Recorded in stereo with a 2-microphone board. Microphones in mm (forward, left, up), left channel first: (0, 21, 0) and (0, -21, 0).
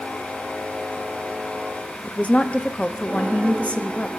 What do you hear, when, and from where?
2.0 s a woman speaking: 30° left (ahead or behind), 1.0 m